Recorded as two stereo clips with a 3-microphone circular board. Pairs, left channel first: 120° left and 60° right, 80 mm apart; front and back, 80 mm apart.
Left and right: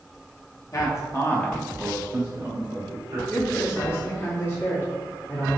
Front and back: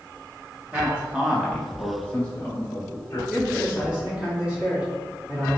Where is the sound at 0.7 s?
115° left, 0.9 m; by 3.2 s 40° right, 1.0 m.